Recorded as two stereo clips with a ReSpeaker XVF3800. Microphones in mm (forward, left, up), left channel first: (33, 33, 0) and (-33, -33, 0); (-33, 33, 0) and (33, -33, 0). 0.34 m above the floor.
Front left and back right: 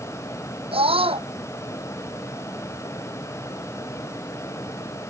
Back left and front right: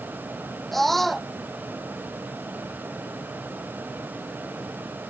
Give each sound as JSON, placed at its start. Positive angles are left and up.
{"t": 0.7, "sound": "a scream", "azimuth_deg": -135}